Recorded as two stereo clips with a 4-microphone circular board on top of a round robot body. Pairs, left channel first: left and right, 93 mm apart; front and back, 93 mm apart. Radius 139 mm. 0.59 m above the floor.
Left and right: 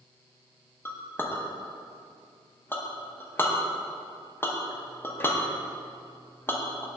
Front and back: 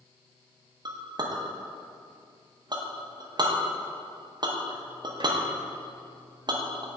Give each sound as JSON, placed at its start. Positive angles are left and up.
{"t": 0.8, "sound": "a clink", "azimuth_deg": 155, "distance_m": 1.0}